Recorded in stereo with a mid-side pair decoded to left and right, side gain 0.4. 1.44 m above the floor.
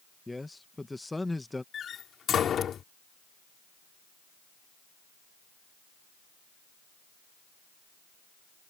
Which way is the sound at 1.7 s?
60° left.